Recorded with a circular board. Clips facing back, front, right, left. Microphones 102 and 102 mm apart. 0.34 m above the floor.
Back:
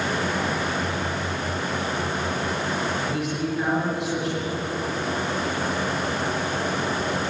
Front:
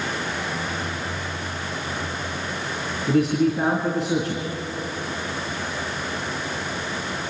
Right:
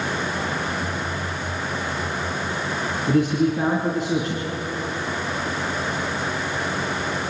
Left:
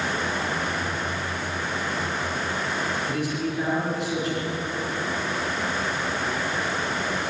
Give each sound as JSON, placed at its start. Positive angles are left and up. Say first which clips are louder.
{"t": 3.1, "sound": "a man speaking", "louder": "front 7 dB, right 8 dB", "azimuth_deg": -55, "distance_m": 4.0}